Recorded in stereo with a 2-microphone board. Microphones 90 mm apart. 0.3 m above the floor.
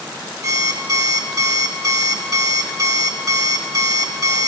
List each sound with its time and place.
0.4 s an alarm clock: 40° right (ahead or behind), 0.6 m